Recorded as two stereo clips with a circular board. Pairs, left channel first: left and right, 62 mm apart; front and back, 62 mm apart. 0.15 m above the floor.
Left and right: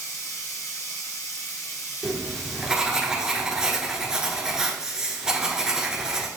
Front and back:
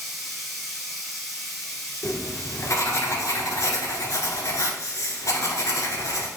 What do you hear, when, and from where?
0.0 s running water: 90° left, 1.5 m
2.0 s writing: 15° right, 1.2 m